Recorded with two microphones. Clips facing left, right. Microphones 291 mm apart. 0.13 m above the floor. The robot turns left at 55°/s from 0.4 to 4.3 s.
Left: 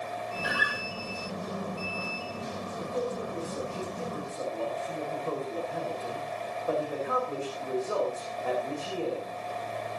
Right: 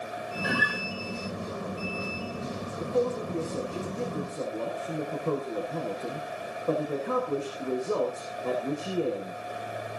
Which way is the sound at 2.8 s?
60° right.